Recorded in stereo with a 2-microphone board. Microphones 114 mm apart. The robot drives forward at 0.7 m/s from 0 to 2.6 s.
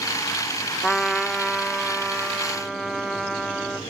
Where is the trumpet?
5° left (ahead or behind), 0.5 m; by 3.8 s centre (ahead or behind), 1.7 m.